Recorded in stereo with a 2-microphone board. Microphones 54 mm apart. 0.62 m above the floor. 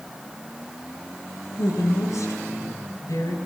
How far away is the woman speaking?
About 9.5 m.